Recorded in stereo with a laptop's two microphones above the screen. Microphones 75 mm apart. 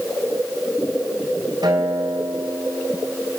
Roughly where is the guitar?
Right.